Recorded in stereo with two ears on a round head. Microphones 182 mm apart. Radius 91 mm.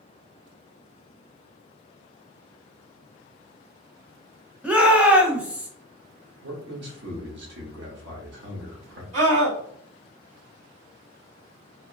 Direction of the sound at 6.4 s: 65° right (ahead or behind).